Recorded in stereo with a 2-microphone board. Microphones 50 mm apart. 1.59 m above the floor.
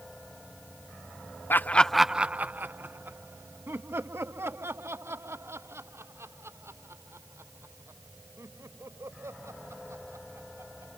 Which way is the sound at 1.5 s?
45° left (ahead or behind).